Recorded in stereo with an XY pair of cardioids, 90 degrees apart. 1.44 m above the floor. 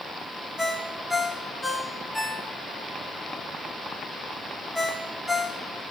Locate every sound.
0.6 s a ringtone: 5° left, 2 m